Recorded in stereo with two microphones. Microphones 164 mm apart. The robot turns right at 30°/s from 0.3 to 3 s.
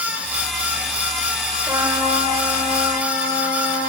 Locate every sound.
1.7 s a trumpet: 160° right, 3.5 m; by 3.9 s 120° right, 3.5 m